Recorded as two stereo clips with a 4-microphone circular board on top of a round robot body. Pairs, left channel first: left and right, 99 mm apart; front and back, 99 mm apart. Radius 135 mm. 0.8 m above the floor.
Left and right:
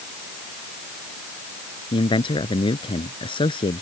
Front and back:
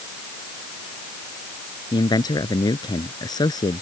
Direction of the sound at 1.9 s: 50° left.